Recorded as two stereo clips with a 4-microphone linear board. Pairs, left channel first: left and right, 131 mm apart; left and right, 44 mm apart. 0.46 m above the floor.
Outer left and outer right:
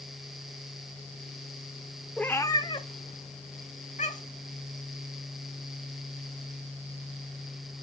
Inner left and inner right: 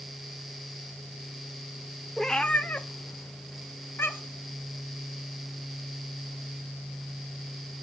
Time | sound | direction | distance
2.2 | a cat meowing | 5° left (ahead or behind) | 0.6 m